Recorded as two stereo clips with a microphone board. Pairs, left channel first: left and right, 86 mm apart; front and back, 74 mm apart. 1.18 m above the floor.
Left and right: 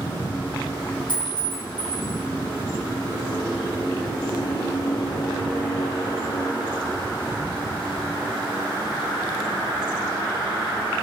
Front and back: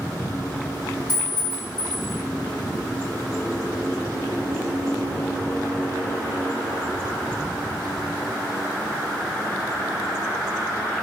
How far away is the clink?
About 1.8 m.